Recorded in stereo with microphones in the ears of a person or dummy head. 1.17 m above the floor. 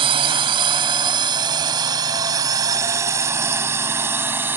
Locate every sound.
0.0 s a drone: 30° right (ahead or behind); by 4.6 s 10° right (ahead or behind)